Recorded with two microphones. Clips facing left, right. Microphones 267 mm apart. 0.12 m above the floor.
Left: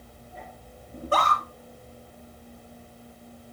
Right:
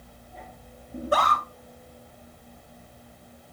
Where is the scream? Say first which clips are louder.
Right 2 dB; 10° right (ahead or behind), 1.7 m.